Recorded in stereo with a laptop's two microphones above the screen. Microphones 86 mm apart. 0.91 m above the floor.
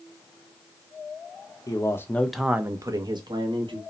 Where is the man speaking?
40° left (ahead or behind), 0.7 m; by 3.8 s 70° right (ahead or behind), 1.1 m.